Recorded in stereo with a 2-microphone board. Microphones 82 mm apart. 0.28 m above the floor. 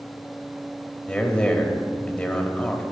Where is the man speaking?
10° left (ahead or behind), 0.9 m.